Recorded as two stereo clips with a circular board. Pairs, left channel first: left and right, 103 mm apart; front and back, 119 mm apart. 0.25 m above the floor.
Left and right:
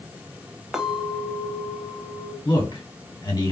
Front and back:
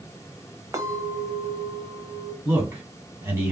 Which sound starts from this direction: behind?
A clink, at 0.7 s.